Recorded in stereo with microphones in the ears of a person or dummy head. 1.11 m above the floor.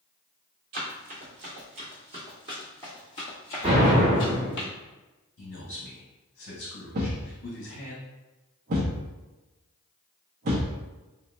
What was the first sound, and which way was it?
Running footsteps, 40° right (ahead or behind).